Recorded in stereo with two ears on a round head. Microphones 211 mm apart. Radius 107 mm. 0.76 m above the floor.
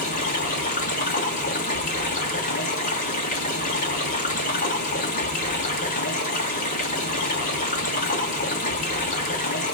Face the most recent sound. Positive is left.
turn(degrees=35)  # may be behind; listen again after turning